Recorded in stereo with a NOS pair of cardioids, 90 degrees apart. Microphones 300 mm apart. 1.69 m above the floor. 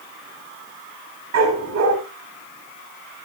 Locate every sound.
1.3 s a dog barking: 60° right, 5 m